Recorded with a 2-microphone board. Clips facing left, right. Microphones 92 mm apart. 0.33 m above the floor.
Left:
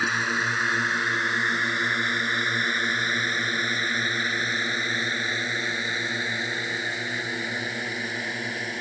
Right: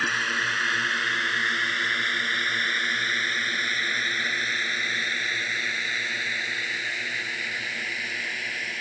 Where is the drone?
10° left (ahead or behind); by 8.8 s 25° left (ahead or behind).